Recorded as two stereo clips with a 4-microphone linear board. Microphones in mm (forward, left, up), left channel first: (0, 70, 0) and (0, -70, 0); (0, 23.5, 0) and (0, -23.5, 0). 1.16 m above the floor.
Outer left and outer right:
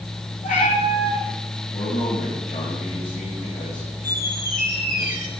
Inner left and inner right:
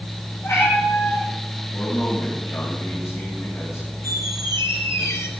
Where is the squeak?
85° left, 2.5 m.